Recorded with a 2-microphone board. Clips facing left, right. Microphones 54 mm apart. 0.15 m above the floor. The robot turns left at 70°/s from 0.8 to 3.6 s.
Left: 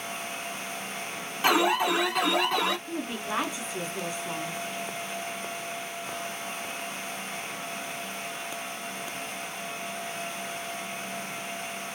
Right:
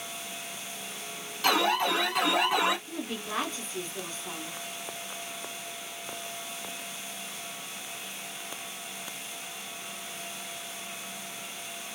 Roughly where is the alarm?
Left.